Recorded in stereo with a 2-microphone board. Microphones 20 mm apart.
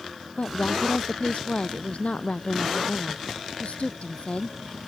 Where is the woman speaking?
75° left (ahead or behind).